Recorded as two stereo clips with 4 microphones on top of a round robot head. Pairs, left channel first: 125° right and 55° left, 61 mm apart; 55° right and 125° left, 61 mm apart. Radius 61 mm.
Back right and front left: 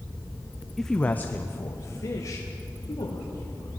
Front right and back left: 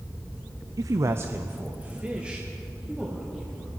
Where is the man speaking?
145° left, 0.7 m; by 3.7 s 150° right, 3 m.